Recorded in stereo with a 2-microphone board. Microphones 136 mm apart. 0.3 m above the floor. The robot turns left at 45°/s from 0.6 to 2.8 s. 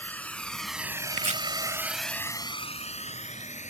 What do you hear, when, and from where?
0.0 s a drone: 10° left (ahead or behind); by 3.7 s 60° left (ahead or behind)
1.1 s chopping: 55° right (ahead or behind)